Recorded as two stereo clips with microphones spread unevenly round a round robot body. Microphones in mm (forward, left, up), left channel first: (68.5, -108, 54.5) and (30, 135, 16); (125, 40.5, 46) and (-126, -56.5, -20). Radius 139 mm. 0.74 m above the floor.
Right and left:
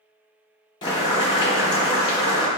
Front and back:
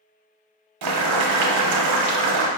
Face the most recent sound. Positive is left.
turn(degrees=-155)